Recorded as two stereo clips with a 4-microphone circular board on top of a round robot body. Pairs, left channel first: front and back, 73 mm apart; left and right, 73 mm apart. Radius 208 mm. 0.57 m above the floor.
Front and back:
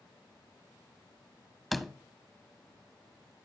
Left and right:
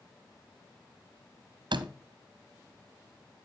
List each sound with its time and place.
1.7 s a door slam: 90° right, 1.4 m